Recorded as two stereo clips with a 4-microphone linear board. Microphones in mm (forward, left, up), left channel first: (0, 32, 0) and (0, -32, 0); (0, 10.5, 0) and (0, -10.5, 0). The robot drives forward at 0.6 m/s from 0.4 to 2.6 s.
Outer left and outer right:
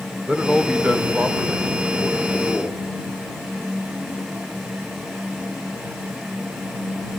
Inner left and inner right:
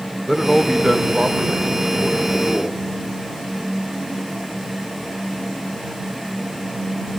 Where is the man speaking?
15° right (ahead or behind), 2 m; by 2.8 s 10° right (ahead or behind), 3.5 m.